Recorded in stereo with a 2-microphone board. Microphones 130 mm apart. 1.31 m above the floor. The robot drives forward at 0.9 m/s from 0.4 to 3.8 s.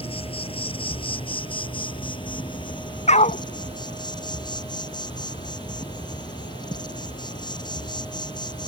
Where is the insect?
45° left (ahead or behind); by 8.7 s 35° left (ahead or behind).